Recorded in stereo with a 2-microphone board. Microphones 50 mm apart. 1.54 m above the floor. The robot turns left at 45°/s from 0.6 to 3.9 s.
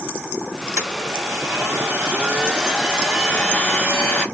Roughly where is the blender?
Right.